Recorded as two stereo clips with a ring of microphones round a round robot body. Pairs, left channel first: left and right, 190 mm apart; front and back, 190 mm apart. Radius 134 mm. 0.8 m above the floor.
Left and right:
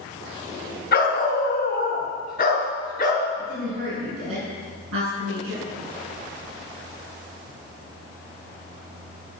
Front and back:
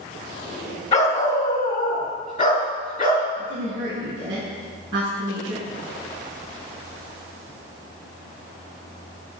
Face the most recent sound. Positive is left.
turn(degrees=-90)